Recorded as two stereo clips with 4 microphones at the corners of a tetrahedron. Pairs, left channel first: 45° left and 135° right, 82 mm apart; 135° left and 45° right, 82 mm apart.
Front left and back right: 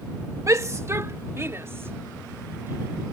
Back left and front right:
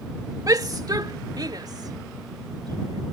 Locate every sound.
0.5 s a shout: 85° right; by 3.0 s 75° right